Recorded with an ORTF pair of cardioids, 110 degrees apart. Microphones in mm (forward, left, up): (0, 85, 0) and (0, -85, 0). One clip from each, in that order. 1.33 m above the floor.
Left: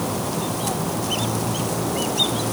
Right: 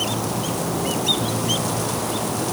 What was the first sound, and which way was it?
Only background noise.